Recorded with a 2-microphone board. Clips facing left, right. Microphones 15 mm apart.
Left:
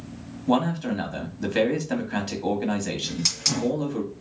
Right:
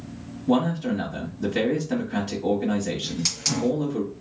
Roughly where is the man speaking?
Left.